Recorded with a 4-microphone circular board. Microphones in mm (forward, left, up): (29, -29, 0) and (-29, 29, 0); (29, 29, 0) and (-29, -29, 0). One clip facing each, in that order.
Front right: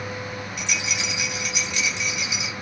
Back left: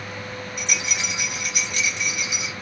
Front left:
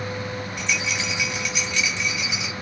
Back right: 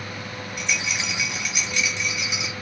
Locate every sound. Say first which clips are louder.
0.6 s a rattle: back left 1 dB, even; 140° left, 1.8 m